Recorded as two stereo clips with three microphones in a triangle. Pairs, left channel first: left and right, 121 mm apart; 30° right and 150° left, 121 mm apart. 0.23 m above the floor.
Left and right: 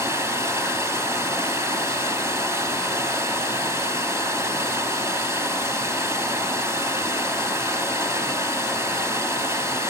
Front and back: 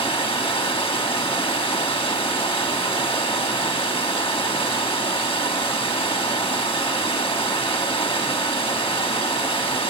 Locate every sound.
0.0 s running water: 30° right, 1.4 m